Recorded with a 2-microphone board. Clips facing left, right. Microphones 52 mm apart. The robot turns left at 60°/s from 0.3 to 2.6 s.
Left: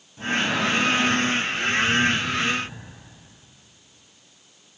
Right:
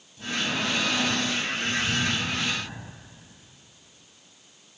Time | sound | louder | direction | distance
0.2 | breathing | left 5 dB | 40° left | 3 m